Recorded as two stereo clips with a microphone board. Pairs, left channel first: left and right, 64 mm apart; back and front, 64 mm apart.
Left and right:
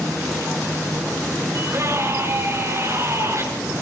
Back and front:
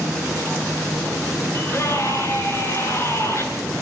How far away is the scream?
About 7.5 m.